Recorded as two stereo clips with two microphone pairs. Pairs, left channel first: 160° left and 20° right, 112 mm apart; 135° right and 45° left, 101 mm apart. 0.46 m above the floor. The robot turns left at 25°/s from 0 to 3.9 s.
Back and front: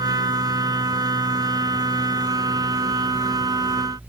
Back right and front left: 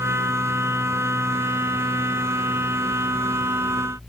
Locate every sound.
Only background noise.